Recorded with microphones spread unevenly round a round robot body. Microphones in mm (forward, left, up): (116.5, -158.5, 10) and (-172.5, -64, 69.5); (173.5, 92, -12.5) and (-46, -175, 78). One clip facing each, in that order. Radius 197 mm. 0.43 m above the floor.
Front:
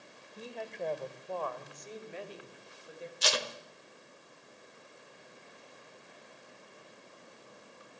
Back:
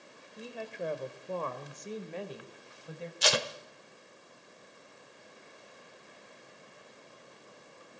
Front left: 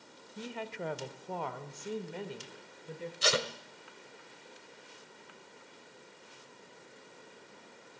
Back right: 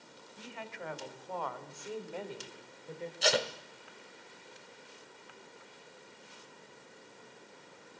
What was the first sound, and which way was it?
A woman speaking, 65° left.